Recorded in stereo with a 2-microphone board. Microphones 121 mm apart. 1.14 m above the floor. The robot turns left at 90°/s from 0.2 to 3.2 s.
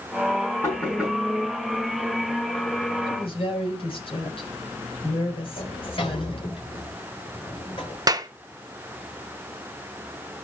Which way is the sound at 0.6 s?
25° left (ahead or behind).